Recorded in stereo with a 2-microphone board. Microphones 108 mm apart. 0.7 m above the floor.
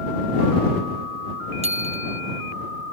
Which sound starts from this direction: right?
A bicycle bell, at 1.6 s.